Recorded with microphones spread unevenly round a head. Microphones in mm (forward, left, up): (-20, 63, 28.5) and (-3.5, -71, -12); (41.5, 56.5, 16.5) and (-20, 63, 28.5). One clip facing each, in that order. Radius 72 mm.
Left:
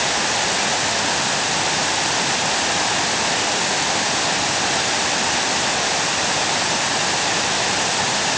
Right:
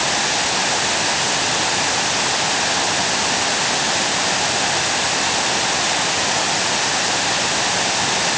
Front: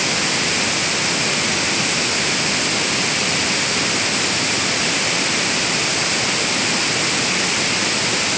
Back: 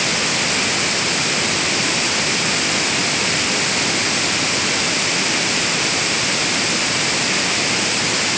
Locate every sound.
Only background noise.